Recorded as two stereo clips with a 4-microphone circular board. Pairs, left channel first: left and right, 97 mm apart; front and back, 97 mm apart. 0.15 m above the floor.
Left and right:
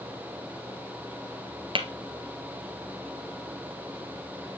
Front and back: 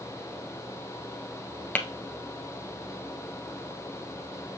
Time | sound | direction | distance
1.8 | tapping | 75° right | 1.1 m